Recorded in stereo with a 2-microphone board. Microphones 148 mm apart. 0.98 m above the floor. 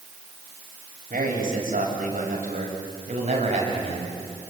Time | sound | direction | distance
1.1 | a man speaking | 70° right (ahead or behind) | 7 m